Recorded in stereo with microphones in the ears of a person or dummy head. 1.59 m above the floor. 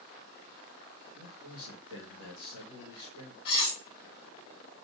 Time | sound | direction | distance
1.1 | a man speaking | 70° left (ahead or behind) | 2.5 m
3.5 | cutlery clinking | 65° left (ahead or behind) | 1.9 m